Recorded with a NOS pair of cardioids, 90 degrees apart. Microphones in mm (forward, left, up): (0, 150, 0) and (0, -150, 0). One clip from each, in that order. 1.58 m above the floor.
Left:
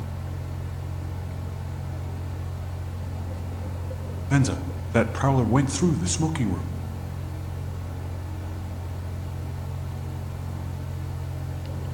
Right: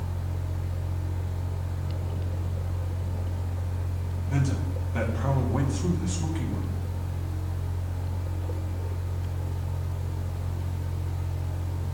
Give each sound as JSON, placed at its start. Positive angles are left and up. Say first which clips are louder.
{"t": 0.0, "sound": "a fan", "louder": "left 1 dB", "azimuth_deg": 45, "distance_m": 3.5}
{"t": 4.3, "sound": "a man speaking", "louder": "left 7 dB", "azimuth_deg": 65, "distance_m": 0.7}